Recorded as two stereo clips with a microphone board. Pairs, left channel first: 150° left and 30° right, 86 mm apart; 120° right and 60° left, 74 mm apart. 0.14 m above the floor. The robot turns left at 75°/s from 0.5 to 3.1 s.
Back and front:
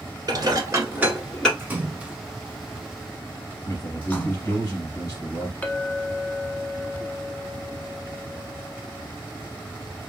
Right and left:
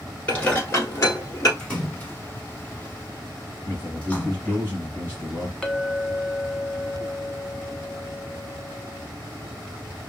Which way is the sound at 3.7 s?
175° left.